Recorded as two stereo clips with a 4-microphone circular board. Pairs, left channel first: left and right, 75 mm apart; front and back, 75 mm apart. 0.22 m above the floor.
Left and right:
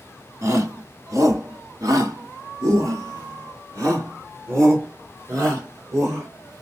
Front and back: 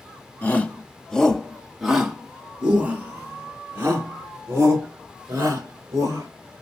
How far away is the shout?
About 1.3 m.